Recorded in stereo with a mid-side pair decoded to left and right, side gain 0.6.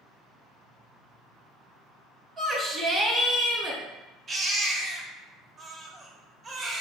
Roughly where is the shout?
Ahead right.